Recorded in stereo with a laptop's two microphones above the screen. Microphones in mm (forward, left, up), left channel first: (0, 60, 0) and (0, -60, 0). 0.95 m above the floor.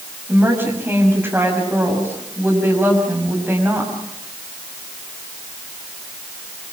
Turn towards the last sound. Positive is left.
turn(degrees=-20)  # may be behind; listen again after turning